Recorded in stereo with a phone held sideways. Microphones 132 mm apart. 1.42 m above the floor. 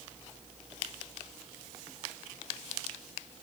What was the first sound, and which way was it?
Only background noise.